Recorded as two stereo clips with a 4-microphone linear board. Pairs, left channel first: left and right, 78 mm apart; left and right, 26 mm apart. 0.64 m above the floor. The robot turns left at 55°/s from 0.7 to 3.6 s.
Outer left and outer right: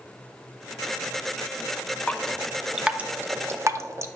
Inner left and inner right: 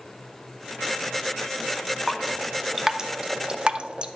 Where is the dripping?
15° left (ahead or behind), 0.5 m; by 4.1 s 40° right (ahead or behind), 0.5 m.